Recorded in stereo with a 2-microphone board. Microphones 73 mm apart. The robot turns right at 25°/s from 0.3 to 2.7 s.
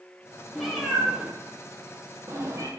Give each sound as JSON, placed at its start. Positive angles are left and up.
{"t": 0.6, "sound": "a cat meowing", "side_deg": 0, "distance_m": 1.8}